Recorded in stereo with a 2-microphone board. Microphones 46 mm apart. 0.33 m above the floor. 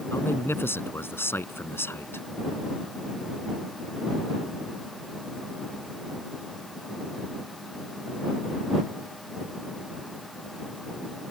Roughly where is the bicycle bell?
I don't hear a bicycle bell.